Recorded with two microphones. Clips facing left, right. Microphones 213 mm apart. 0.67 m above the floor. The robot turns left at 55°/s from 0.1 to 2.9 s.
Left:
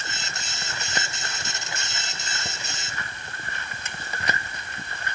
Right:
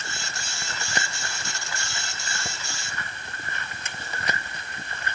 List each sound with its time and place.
Only background noise.